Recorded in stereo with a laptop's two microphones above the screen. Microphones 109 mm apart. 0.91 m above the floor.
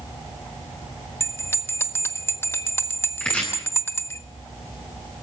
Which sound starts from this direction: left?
A bell, at 1.2 s.